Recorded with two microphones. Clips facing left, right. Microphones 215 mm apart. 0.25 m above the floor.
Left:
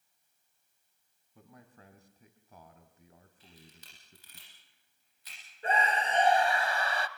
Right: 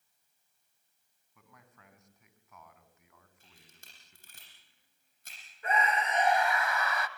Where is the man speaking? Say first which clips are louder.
Left 6 dB; 30° left (ahead or behind), 2.5 m.